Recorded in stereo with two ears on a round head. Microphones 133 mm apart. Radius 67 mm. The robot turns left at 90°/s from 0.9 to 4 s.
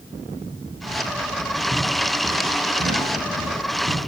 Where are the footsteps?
40° left (ahead or behind), 4.5 m; by 4.1 s 50° right (ahead or behind), 5 m.